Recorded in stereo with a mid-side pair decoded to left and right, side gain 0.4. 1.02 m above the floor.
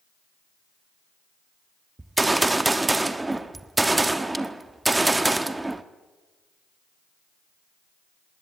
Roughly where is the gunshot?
Ahead.